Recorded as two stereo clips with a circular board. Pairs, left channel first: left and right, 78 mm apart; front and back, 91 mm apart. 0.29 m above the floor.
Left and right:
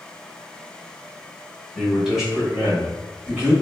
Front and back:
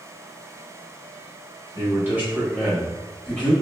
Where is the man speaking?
175° right, 1.4 m; by 3.5 s 50° right, 1.4 m.